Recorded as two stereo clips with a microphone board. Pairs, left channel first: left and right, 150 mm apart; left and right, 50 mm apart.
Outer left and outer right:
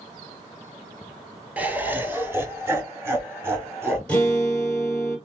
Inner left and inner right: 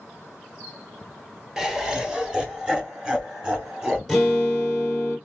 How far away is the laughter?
About 0.8 m.